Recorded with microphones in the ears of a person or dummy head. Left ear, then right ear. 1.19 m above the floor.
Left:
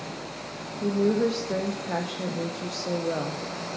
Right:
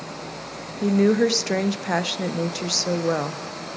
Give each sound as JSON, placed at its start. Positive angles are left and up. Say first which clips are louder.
{"t": 0.8, "sound": "a woman speaking", "louder": "right 5 dB", "side_deg": -65, "distance_m": 0.7}